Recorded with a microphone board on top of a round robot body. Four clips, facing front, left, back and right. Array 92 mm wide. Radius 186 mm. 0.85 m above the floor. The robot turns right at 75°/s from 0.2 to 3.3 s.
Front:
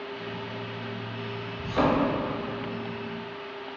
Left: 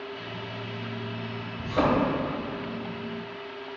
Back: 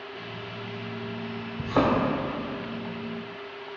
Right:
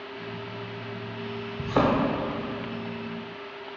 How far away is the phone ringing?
I don't hear a phone ringing.